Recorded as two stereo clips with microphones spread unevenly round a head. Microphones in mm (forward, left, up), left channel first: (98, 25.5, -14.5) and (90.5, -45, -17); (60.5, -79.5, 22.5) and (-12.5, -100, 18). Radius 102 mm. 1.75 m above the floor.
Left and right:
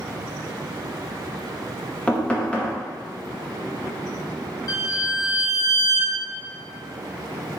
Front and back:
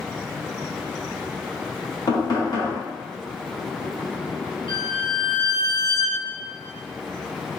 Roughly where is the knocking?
Ahead.